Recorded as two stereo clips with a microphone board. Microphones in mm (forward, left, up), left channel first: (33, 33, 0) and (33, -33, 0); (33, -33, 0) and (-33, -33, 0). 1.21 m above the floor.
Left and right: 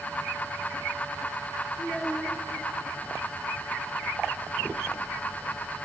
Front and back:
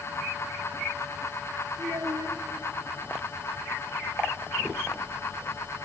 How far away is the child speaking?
About 1.7 m.